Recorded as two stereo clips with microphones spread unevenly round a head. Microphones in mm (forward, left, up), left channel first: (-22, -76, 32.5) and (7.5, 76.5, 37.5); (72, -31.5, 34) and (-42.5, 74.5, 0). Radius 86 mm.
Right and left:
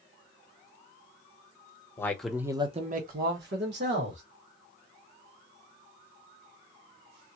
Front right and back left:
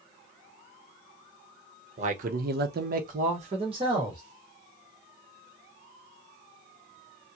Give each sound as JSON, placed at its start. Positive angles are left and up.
{"t": 2.0, "sound": "a man speaking", "azimuth_deg": -175, "distance_m": 1.0}